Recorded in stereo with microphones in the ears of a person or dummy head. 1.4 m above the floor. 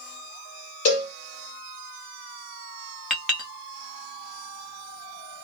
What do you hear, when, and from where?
0.8 s a cowbell: 30° left (ahead or behind), 0.9 m
3.1 s a clink: 5° left (ahead or behind), 1.2 m